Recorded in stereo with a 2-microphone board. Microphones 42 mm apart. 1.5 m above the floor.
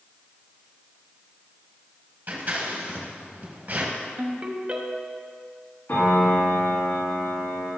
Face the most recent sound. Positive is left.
turn(degrees=55)  # may be behind; listen again after turning